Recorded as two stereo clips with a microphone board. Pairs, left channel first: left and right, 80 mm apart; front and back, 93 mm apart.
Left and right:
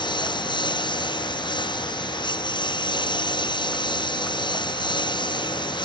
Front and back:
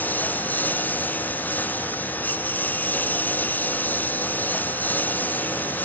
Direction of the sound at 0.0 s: 70° left.